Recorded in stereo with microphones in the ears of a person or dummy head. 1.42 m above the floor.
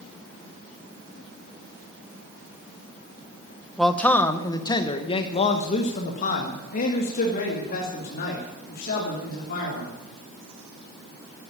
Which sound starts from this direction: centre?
A man speaking, at 3.8 s.